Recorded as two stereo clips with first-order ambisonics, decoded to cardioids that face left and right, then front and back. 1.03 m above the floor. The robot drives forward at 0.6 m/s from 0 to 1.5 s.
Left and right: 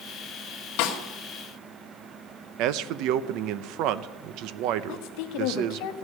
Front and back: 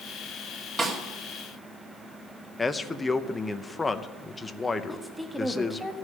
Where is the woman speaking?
95° left, 1.3 m.